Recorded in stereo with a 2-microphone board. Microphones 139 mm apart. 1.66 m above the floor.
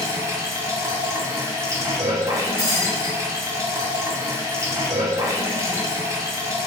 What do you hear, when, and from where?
0.0 s running water: 20° right (ahead or behind), 0.8 m
2.6 s breaking glass: 20° right (ahead or behind), 2.0 m